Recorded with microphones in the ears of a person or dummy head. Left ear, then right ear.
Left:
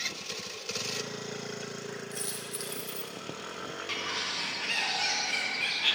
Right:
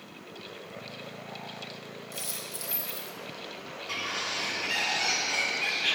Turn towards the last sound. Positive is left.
turn(degrees=40)  # may be behind; listen again after turning